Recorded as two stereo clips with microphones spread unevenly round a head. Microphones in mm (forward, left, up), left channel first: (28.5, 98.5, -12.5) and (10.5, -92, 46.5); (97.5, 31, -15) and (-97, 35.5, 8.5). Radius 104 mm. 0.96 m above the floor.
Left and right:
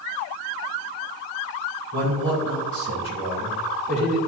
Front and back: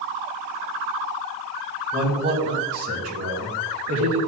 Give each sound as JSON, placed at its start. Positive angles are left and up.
{"t": 1.9, "sound": "a man speaking", "azimuth_deg": -110, "distance_m": 3.5}